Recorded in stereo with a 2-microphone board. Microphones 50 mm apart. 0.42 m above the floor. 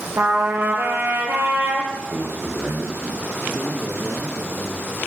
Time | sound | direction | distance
0.2 | a trumpet | 50° right (ahead or behind) | 5.5 m
1.9 | a man speaking | 55° right (ahead or behind) | 6 m
3.5 | a man speaking | 45° right (ahead or behind) | 6.5 m